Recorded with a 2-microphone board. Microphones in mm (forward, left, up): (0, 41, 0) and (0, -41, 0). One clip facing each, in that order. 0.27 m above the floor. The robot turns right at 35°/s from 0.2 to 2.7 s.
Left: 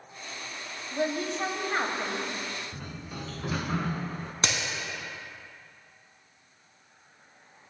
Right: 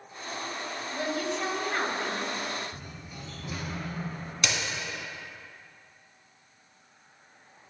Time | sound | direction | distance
0.9 | a woman speaking | 85° left | 1.3 m
2.7 | a sliding door | 80° left | 0.6 m
4.4 | a crack | 35° left (ahead or behind) | 1.6 m